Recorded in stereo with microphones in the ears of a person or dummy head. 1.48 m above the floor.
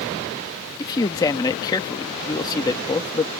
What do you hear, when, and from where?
0.8 s a man speaking: 20° left (ahead or behind)